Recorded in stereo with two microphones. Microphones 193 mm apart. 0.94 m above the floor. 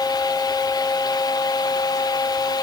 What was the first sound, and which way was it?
Only background noise.